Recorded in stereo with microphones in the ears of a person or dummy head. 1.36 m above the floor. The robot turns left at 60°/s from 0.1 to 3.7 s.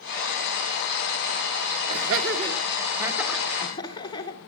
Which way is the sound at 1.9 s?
85° right.